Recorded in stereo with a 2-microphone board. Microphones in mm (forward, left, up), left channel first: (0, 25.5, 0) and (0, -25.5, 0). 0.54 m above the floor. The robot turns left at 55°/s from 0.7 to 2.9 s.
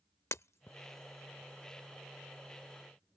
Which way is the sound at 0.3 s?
60° left (ahead or behind).